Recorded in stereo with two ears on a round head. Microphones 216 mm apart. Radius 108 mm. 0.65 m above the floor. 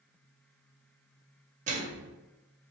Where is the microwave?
30° right (ahead or behind), 0.7 m.